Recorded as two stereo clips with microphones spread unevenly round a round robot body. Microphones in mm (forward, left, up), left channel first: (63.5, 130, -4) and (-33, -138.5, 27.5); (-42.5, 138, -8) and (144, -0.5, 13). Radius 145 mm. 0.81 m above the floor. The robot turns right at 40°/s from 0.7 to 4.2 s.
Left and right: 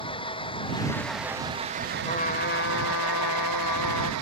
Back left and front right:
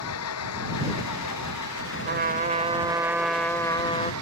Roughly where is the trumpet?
Ahead.